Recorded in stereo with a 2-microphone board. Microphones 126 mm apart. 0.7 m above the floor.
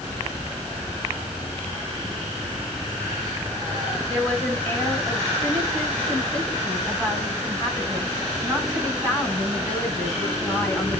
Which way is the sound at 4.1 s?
10° left (ahead or behind).